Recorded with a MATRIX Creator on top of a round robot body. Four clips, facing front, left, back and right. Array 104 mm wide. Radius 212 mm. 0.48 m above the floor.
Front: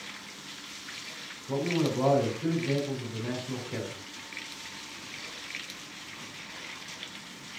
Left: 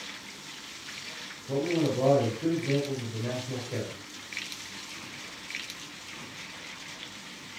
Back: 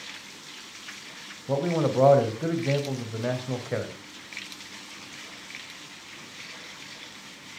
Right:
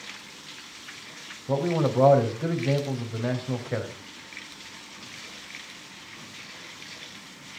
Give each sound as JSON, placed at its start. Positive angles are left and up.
{"t": 1.5, "sound": "a man speaking", "azimuth_deg": -140, "distance_m": 4.0}